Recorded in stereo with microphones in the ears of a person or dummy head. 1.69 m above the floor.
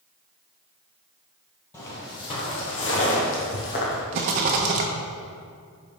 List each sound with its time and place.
1.7 s footsteps: 10° left (ahead or behind), 1.8 m; by 4.0 s 50° left (ahead or behind), 3 m
4.1 s a rattle: 40° right (ahead or behind), 0.9 m